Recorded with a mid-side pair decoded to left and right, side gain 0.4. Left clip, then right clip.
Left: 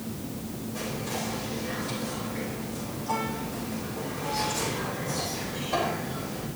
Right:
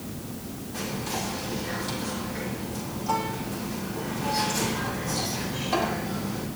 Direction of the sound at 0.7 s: 55° right.